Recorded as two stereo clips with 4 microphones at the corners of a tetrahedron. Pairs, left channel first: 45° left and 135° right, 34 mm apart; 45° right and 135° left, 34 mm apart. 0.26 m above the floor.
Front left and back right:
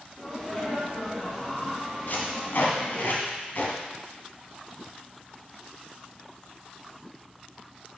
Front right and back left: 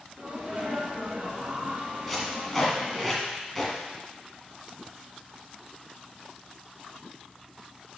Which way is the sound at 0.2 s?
125° left.